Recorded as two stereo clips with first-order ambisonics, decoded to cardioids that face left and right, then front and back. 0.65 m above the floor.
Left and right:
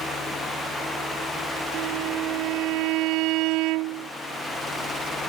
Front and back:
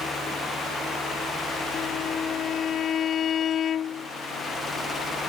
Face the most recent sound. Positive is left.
turn(degrees=-60)